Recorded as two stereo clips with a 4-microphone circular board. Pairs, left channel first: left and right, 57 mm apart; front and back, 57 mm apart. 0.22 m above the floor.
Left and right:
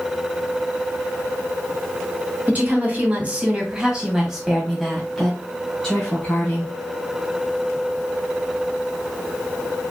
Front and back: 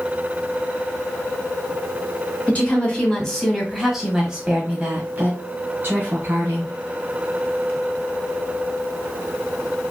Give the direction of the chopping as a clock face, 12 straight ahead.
I don't hear chopping.